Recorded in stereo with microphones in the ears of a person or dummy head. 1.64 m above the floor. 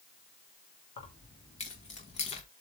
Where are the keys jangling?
30° left (ahead or behind), 2.5 m.